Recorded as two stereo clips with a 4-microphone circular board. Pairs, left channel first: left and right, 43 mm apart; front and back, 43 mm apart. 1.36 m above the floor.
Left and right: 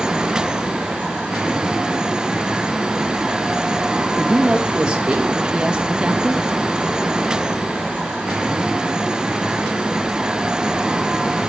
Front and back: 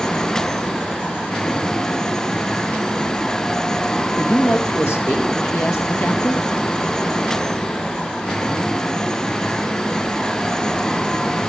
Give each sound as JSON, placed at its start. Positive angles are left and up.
{"t": 4.2, "sound": "a woman speaking", "azimuth_deg": -15, "distance_m": 2.0}